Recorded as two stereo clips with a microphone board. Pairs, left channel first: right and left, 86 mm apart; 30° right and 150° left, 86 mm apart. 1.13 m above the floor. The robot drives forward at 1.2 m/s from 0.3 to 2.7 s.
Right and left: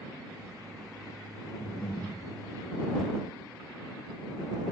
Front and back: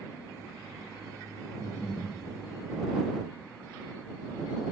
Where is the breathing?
95° right, 4 m; by 2.1 s 105° right, 4 m.